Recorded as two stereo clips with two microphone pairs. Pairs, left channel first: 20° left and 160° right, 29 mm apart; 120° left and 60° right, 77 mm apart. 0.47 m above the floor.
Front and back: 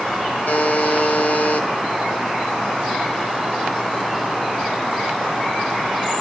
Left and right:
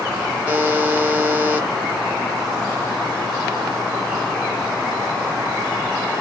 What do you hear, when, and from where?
0.5 s a buzzer: 15° left, 0.8 m